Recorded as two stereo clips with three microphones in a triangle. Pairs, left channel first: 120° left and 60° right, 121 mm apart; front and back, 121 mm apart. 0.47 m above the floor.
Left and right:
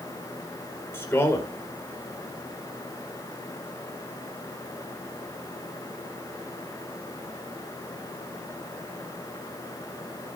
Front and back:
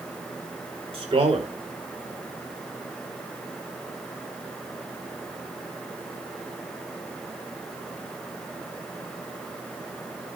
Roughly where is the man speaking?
Behind.